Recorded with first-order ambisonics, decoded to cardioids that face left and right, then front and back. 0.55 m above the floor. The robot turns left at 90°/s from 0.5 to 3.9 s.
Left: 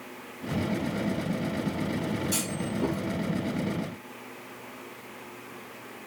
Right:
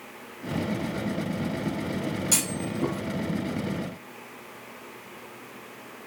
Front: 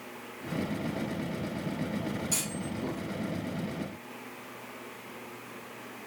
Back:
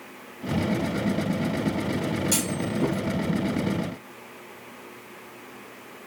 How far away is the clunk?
About 3.5 m.